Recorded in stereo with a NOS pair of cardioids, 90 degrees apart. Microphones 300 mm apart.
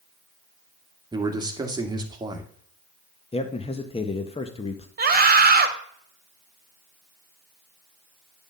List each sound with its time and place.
1.1 s a man speaking: 15° right, 1.7 m
3.3 s a man speaking: 20° left, 1.0 m
5.0 s a scream: 30° right, 1.7 m